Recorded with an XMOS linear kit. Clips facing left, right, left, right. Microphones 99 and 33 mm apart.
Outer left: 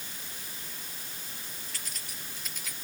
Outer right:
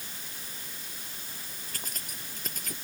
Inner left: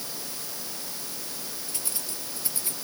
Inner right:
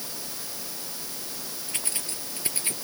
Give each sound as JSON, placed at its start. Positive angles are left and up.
{"t": 1.7, "sound": "keys jangling", "side_deg": -45}